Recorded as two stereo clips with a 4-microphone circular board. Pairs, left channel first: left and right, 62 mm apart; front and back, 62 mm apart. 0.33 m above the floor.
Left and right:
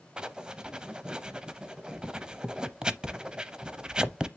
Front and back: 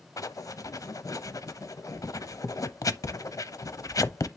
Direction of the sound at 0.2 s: 15° right.